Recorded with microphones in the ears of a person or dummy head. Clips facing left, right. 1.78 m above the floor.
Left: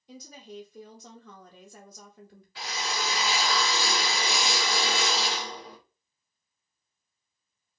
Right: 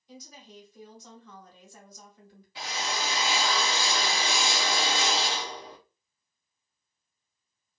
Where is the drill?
15° right (ahead or behind), 1.3 m.